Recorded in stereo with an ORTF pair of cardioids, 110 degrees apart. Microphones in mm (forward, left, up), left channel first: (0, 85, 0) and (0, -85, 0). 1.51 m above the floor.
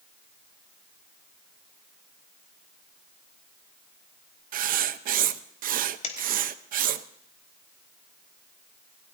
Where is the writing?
55° right, 0.8 m.